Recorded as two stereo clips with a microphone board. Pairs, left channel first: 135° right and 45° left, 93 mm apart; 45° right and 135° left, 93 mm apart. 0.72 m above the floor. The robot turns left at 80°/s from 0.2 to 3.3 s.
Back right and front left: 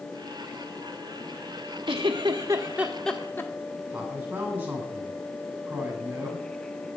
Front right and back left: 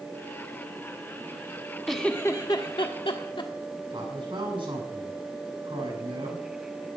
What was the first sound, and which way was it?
A giggle, 45° left.